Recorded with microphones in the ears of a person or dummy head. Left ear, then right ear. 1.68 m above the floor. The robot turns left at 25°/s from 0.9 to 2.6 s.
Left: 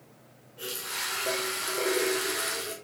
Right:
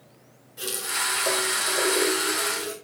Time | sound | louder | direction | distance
0.6 | a running tap | right 6 dB | 115° right | 3.5 m